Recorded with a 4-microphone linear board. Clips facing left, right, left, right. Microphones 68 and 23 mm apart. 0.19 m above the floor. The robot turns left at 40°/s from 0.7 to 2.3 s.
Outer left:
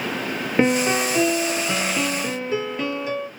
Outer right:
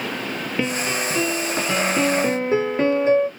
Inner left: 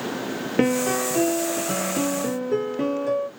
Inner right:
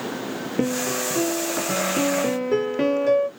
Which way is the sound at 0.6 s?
30° left.